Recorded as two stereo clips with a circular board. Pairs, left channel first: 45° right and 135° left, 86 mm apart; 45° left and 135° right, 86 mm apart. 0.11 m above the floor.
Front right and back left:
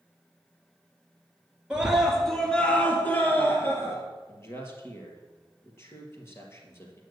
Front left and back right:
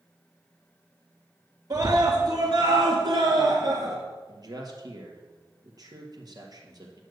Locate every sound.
1.7 s a scream: 150° right, 2 m; by 4.0 s 100° right, 3 m
4.3 s a man speaking: 105° right, 2.5 m